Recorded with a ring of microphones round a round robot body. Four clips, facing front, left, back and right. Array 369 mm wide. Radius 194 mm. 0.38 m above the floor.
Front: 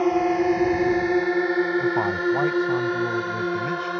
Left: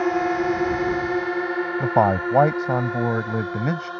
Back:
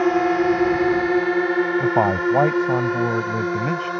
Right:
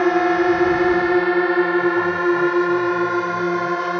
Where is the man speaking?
125° left.